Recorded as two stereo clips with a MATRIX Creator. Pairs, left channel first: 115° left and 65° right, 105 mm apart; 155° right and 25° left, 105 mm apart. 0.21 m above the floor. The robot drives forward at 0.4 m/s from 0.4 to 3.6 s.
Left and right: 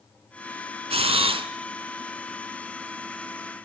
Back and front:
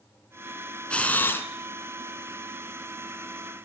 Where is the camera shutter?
80° right, 1.1 m; by 1.5 s 90° right, 1.1 m.